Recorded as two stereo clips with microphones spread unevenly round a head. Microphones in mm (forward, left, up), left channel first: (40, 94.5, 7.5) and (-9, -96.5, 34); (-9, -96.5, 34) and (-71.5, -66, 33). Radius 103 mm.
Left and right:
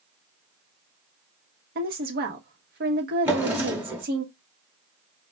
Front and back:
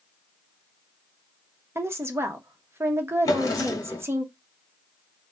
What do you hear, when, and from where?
1.8 s a woman speaking: 155° right, 1.0 m
3.2 s a drawer: 30° right, 0.9 m